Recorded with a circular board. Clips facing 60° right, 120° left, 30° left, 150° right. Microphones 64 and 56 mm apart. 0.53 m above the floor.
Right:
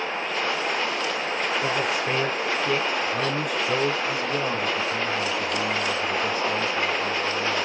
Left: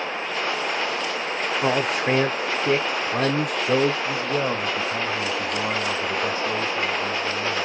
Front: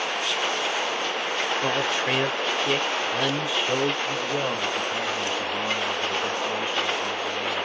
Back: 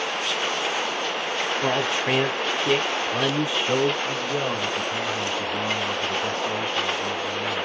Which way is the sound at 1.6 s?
130° left.